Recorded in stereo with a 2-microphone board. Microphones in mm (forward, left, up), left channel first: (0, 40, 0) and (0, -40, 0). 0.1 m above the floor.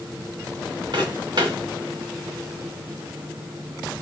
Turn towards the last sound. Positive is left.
turn(degrees=-60)  # may be behind; listen again after turning